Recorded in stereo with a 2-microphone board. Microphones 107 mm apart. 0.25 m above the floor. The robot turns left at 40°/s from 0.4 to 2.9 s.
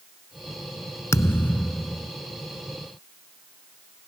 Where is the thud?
35° left; by 2.1 s 5° right.